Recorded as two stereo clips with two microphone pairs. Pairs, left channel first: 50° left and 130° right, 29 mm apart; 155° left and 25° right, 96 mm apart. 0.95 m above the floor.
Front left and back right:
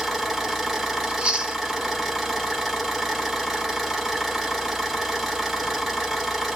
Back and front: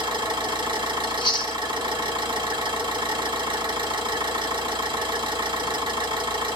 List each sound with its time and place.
0.0 s an engine running: 50° right, 1.1 m
1.0 s chewing: 175° right, 0.6 m